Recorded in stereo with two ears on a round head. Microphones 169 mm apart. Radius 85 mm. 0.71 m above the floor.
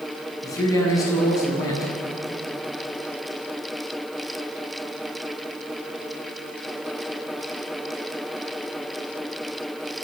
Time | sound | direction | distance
0.4 | a man speaking | 20° left (ahead or behind) | 7.5 m